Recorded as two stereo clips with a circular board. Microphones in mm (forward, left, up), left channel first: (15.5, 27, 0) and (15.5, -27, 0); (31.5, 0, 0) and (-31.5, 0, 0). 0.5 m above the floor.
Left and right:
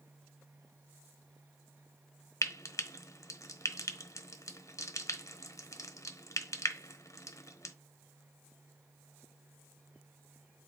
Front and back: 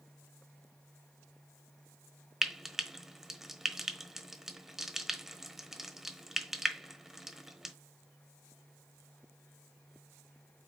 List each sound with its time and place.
2.4 s frying: 95° left, 1.1 m